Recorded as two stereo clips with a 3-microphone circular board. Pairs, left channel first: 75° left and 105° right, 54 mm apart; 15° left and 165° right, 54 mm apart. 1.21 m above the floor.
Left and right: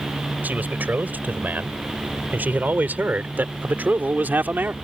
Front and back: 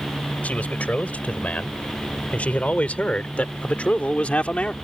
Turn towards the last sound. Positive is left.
turn(degrees=-50)